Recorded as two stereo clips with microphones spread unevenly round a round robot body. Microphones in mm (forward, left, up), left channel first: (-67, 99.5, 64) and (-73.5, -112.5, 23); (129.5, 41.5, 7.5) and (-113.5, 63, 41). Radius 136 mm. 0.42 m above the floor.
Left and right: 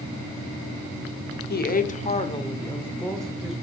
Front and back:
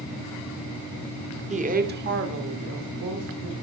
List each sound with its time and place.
1.5 s a woman speaking: 115° left, 1.0 m; by 3.5 s 170° right, 1.5 m